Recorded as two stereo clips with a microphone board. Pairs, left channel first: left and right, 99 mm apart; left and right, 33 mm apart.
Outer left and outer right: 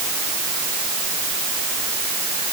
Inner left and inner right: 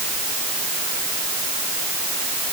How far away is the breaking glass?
No breaking glass in this recording.